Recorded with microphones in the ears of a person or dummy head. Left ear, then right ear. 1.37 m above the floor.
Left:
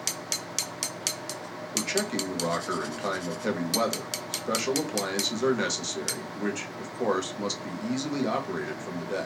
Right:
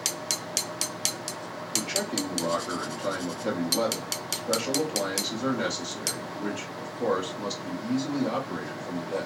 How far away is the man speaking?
About 1.7 m.